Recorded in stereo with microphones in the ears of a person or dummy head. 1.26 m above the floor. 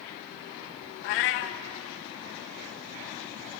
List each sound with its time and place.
1.0 s a cat meowing: 45° left (ahead or behind), 0.5 m